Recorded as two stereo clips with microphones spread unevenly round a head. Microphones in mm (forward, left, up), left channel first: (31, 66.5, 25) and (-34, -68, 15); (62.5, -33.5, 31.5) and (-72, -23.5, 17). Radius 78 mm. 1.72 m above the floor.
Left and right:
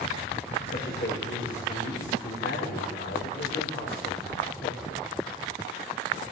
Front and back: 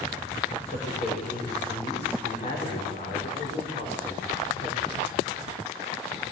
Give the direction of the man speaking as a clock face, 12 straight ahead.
11 o'clock.